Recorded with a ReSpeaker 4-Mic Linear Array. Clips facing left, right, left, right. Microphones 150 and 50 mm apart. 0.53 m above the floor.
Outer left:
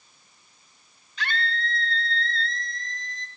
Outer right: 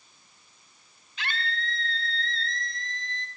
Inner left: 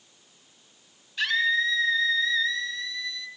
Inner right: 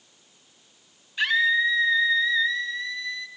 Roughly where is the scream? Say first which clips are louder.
Outer left 4 dB, inner right 3 dB; centre.